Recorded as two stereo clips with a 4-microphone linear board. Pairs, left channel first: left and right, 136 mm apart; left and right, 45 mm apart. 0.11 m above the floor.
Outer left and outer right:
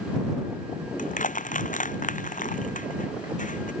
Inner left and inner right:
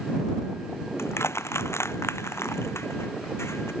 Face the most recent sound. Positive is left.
turn(degrees=70)  # may be behind; listen again after turning